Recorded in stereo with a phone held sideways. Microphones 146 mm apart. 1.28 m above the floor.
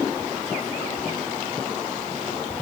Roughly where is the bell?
I don't hear a bell.